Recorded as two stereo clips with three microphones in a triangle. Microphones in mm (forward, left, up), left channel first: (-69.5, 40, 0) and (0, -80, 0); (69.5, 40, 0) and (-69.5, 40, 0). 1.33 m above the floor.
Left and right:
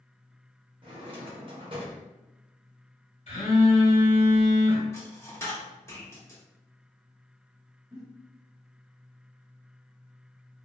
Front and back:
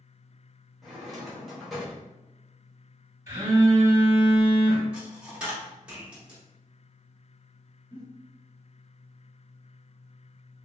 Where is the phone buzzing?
125° left, 1.4 m.